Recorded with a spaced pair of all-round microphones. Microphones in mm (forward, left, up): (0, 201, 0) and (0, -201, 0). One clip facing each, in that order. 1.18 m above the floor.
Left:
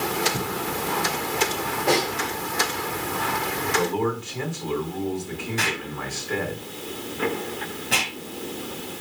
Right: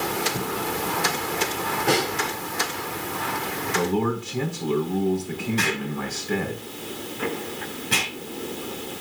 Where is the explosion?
15° right (ahead or behind), 5.5 m.